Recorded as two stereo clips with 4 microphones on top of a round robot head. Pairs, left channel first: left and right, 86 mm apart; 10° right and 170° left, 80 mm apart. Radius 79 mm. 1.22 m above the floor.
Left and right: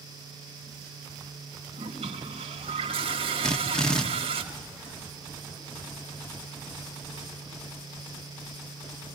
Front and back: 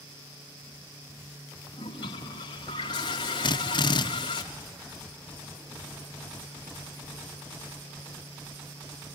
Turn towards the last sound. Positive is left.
turn(degrees=5)